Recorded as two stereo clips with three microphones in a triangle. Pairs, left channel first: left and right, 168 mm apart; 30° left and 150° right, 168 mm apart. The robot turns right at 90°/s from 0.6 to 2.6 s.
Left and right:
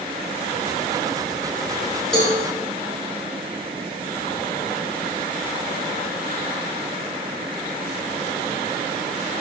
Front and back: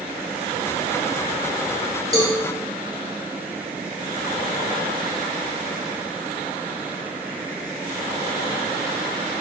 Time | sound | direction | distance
2.1 | a cowbell | 5° left | 1.2 m